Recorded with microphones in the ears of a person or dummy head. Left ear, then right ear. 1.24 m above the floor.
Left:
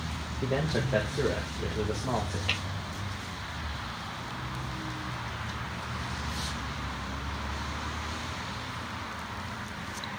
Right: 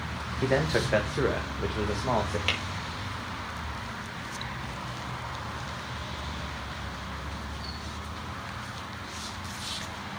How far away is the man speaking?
About 1.5 m.